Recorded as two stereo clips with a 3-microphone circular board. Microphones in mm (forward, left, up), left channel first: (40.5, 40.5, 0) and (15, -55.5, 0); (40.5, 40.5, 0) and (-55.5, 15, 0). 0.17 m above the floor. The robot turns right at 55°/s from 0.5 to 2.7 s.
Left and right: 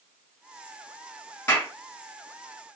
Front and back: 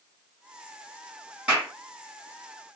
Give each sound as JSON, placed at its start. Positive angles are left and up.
{"t": 1.5, "sound": "a clap", "azimuth_deg": 120, "distance_m": 1.5}